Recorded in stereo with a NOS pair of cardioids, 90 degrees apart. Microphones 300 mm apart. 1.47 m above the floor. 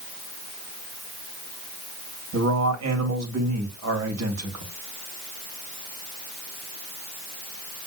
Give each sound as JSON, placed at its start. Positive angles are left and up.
{"t": 2.3, "sound": "a man speaking", "azimuth_deg": -60, "distance_m": 2.5}